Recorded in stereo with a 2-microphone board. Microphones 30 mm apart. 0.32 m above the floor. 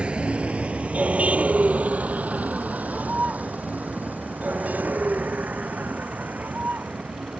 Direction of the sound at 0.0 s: 40° right (ahead or behind).